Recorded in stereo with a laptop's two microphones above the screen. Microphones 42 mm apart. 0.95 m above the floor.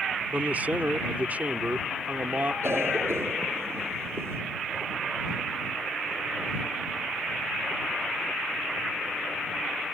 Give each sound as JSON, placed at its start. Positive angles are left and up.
{"t": 0.3, "sound": "a man speaking", "side_deg": -40}
{"t": 2.6, "sound": "a cough", "side_deg": -80}